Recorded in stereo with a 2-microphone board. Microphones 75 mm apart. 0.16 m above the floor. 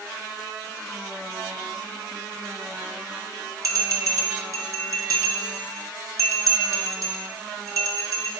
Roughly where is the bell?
Right.